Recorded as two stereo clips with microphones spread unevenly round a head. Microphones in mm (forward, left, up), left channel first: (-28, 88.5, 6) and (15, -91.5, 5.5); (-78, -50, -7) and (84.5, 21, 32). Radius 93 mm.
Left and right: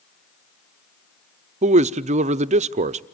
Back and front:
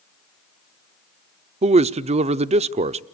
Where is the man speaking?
35° right, 0.5 m.